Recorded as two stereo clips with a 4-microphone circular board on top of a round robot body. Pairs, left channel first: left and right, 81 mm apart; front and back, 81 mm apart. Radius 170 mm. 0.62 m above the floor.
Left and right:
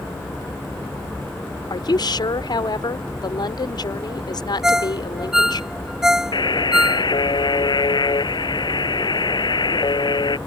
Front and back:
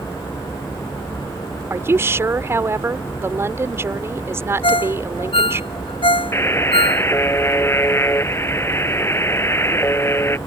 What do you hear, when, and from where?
1.7 s a woman speaking: 120° left
4.6 s a ringtone: 5° right
6.3 s a buzzer: 60° left